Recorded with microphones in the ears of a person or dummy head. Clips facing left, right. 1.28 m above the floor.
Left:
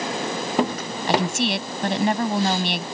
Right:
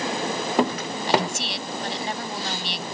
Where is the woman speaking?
50° left (ahead or behind).